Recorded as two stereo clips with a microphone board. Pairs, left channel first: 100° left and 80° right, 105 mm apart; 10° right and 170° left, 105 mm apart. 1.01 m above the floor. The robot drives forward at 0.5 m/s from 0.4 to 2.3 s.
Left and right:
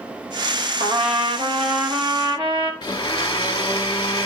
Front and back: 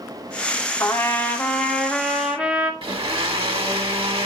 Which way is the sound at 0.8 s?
70° right.